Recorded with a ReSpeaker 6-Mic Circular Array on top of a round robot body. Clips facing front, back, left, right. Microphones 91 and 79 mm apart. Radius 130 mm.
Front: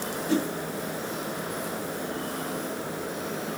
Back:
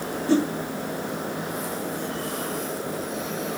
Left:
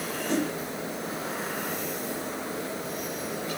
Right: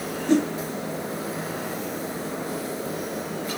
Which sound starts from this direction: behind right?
A whoosh, at 0.3 s.